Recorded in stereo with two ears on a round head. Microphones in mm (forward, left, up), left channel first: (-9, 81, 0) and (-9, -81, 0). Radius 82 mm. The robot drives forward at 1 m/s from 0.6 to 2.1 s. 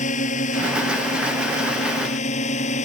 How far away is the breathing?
No breathing in this recording.